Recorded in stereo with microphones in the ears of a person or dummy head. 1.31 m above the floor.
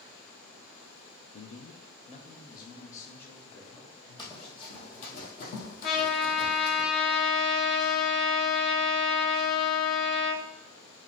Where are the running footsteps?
20° left (ahead or behind), 1.8 m; by 6.8 s 50° left (ahead or behind), 2.5 m.